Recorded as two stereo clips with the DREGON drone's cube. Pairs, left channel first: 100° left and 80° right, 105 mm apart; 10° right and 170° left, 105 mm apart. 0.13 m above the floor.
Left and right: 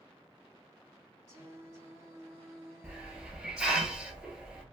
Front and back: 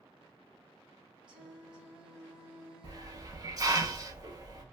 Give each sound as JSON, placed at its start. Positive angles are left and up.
{"t": 1.3, "sound": "singing", "azimuth_deg": -120, "distance_m": 1.8}
{"t": 2.8, "sound": "a hiss", "azimuth_deg": -155, "distance_m": 0.7}